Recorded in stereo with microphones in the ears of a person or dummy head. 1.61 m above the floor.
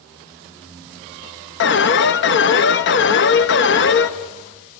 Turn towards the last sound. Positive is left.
turn(degrees=50)  # may be behind; listen again after turning